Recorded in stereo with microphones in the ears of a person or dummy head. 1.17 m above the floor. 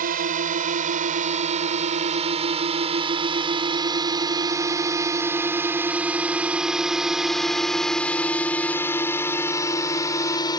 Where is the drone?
45° right (ahead or behind); by 10.6 s 20° left (ahead or behind).